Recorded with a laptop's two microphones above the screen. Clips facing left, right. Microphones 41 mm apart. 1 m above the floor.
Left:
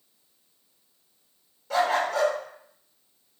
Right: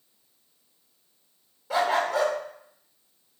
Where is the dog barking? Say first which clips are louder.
Even; 15° right (ahead or behind), 0.7 m.